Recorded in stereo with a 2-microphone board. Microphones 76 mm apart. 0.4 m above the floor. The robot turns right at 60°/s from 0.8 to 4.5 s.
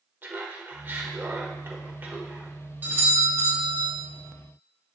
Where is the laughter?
130° right, 1.2 m; by 2.6 s 20° right, 1.2 m.